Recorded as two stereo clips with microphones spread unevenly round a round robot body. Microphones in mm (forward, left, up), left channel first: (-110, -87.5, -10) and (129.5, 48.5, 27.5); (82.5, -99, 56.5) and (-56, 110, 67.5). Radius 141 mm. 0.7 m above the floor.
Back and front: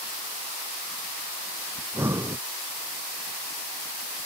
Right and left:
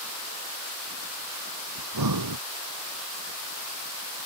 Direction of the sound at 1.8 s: 110° left.